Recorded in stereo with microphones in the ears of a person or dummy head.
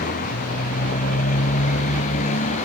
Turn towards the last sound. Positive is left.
turn(degrees=40)  # may be behind; listen again after turning